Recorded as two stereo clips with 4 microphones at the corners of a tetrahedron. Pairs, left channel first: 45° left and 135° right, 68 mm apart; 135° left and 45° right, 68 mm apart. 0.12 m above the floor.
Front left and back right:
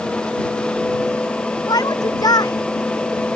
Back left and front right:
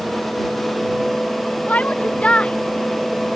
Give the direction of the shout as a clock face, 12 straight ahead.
10 o'clock.